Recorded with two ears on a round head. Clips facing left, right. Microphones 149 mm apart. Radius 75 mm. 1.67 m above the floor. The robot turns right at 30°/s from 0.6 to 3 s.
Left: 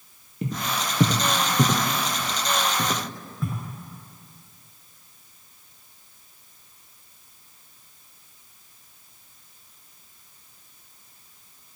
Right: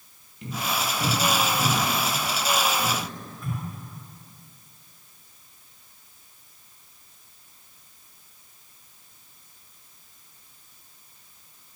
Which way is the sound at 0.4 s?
40° left (ahead or behind).